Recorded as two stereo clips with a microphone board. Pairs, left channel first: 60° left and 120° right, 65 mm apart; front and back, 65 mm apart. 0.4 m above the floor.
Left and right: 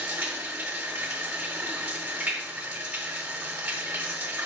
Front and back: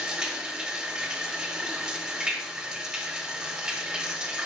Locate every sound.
0.0 s running water: 115° right, 1.2 m